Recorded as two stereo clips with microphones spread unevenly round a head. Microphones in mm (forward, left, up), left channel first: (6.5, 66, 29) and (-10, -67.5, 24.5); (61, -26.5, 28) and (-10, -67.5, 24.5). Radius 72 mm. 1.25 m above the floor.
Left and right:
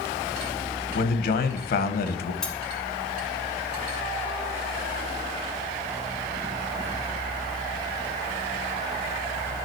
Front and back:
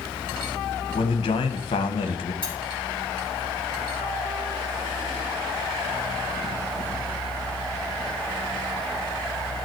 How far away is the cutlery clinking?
About 3 m.